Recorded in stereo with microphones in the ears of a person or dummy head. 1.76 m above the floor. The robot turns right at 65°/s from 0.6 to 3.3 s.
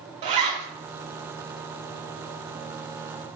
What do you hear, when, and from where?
0.2 s a zipper: 35° right (ahead or behind), 0.5 m